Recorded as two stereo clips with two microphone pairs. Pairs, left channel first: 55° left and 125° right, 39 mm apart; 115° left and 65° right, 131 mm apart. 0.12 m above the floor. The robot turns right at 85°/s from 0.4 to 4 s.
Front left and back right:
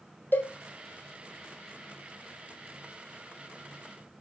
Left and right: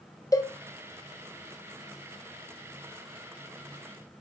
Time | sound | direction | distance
0.3 | a cowbell | 55° left | 1.5 m